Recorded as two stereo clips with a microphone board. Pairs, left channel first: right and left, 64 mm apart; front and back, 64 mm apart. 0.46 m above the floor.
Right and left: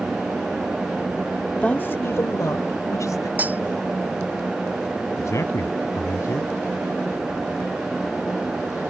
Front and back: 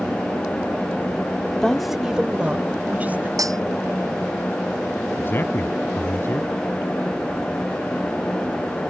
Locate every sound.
1.6 s a woman speaking: 45° right; by 3.3 s 120° right
3.4 s cutlery clinking: 155° left
5.2 s a man speaking: 55° right